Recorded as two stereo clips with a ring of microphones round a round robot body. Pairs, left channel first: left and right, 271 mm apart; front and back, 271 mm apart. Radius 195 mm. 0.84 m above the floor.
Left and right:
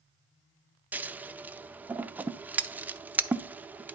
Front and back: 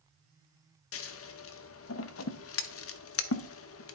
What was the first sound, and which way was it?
Scissors, 5° right.